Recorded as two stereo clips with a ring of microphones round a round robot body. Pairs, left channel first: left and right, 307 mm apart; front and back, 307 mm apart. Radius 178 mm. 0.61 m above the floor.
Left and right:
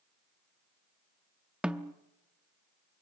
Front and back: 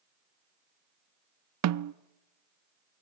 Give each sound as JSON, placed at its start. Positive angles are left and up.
{"t": 1.6, "sound": "a snare drum", "azimuth_deg": -175, "distance_m": 0.6}